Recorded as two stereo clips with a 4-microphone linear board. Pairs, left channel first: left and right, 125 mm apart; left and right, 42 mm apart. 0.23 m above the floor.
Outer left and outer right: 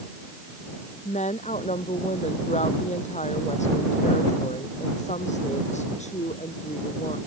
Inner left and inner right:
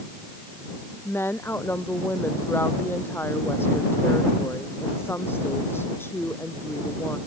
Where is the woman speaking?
80° left.